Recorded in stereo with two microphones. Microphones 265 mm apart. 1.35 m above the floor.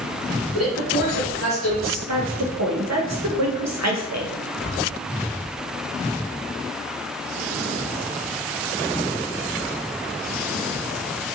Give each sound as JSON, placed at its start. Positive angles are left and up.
{"t": 0.5, "sound": "a man speaking", "side_deg": 55, "distance_m": 0.9}
{"t": 2.1, "sound": "a woman speaking", "side_deg": -80, "distance_m": 0.6}